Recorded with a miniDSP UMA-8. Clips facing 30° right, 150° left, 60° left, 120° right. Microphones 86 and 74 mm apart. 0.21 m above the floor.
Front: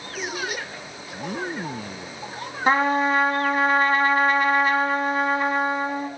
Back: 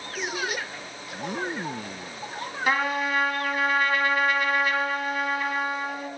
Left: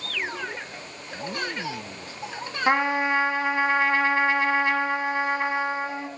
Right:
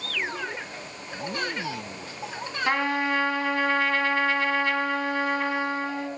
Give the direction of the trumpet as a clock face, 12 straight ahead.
12 o'clock.